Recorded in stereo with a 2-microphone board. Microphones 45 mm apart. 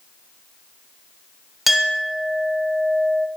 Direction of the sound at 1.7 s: 5° right (ahead or behind).